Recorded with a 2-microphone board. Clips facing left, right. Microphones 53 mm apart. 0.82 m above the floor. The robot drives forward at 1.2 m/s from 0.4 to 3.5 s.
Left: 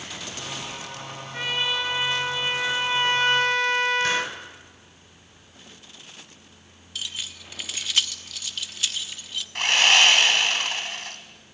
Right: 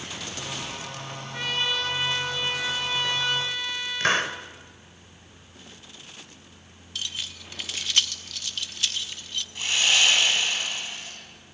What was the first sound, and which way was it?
A trumpet, 15° left (ahead or behind).